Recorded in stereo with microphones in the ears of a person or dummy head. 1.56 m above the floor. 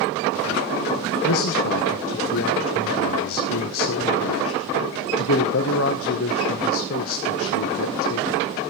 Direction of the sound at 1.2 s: 80° left.